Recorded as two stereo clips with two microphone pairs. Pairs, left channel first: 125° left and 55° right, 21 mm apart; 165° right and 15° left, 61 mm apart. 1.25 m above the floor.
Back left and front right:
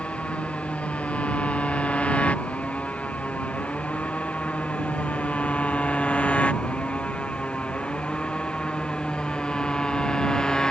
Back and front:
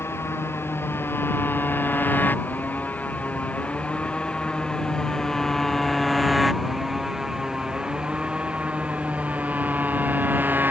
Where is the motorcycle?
150° left; by 10.7 s 75° left.